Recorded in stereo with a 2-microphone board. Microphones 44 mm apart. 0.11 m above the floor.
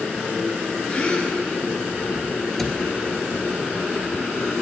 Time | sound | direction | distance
0.9 | a gasp | 30° left (ahead or behind) | 1.0 m
2.6 | a cupboard door | 10° left (ahead or behind) | 0.6 m